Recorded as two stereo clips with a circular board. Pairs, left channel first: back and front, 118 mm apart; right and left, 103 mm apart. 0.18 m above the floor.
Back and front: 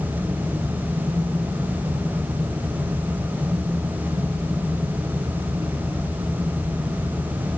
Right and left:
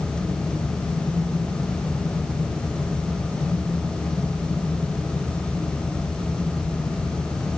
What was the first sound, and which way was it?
Only background noise.